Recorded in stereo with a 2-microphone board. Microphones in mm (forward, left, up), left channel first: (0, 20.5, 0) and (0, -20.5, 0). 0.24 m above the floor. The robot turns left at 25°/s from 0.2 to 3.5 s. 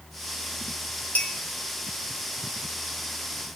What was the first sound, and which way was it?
A clink, 40° left (ahead or behind).